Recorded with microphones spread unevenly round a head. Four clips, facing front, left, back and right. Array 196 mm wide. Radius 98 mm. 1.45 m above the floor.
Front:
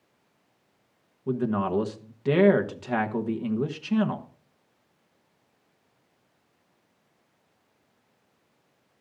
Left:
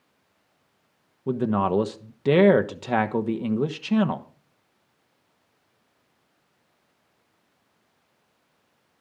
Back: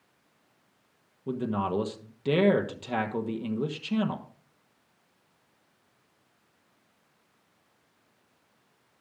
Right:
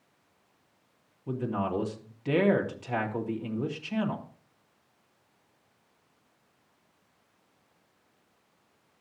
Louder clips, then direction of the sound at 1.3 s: Left 8 dB, front 3 dB; 95° left.